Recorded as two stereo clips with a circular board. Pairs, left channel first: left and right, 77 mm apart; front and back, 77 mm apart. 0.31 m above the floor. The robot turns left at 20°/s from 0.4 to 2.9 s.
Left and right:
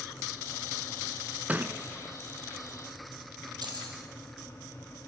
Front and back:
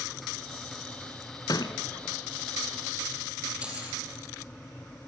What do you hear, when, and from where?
1.5 s a thud: 20° right, 1.1 m; by 1.8 s 25° right, 1.1 m
3.6 s keys jangling: 105° right, 6 m